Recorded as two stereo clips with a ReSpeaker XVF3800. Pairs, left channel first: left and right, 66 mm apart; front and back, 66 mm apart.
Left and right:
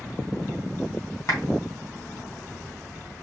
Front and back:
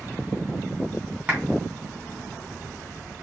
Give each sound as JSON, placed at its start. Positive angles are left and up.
{"t": 1.3, "sound": "a clap", "azimuth_deg": 120, "distance_m": 3.0}